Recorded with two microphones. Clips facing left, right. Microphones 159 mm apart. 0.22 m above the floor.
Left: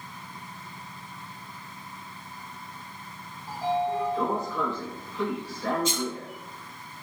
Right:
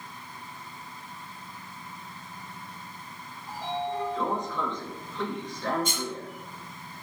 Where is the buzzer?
I don't hear a buzzer.